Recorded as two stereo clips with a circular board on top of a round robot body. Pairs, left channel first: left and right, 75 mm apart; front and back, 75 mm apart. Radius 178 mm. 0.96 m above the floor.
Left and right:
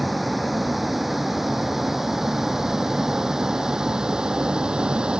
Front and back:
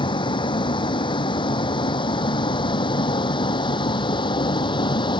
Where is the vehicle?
Straight ahead; by 5.2 s 10° right.